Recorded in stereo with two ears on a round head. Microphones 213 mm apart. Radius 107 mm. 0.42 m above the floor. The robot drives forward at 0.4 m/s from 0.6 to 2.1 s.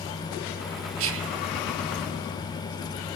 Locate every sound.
1.0 s whispering: 60° right (ahead or behind), 1.7 m